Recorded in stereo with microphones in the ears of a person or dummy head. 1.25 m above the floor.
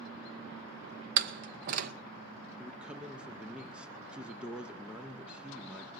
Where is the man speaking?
5° right (ahead or behind), 0.6 m.